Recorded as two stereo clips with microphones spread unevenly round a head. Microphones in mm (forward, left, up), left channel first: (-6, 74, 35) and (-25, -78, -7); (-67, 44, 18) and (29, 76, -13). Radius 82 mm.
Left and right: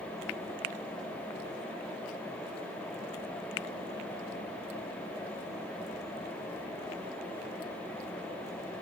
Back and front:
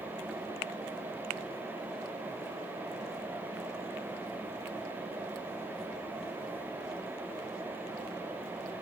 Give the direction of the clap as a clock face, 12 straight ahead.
No clap in this recording.